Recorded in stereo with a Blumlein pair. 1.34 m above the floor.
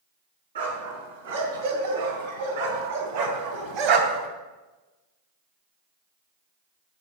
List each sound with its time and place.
0.6 s a dog barking: 70° right, 3.5 m; by 4.3 s 30° right, 2.5 m